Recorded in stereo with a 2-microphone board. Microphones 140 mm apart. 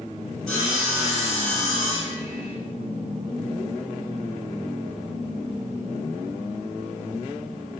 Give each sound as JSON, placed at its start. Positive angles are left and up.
{"t": 0.5, "sound": "sawing", "side_deg": 10, "distance_m": 2.0}